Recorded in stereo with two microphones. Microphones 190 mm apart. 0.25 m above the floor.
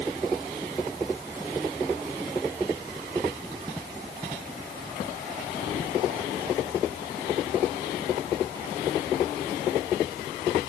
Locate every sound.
Only background noise.